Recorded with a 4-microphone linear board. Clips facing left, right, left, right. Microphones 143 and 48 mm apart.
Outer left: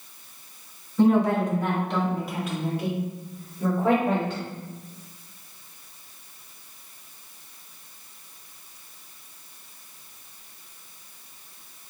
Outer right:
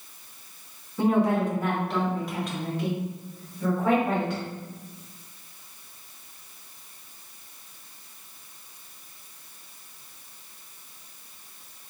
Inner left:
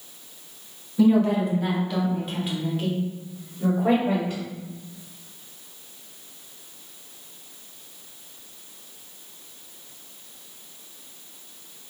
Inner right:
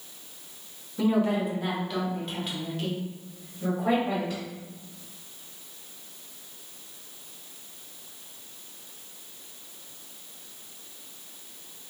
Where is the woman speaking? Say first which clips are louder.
Outer left 3 dB, inner left 5 dB; 10° right (ahead or behind), 1.3 m; by 4.4 s 25° left (ahead or behind), 1.4 m.